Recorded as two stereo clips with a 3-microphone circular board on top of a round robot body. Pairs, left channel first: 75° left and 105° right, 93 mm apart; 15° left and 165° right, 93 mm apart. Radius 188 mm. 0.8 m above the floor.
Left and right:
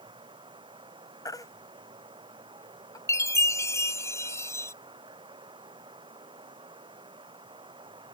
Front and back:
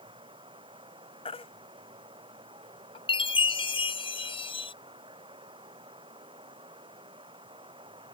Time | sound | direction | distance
0.0 | running water | 135° right | ?
1.2 | a baby crying | 25° left | ?
3.1 | a chime | 20° left | ?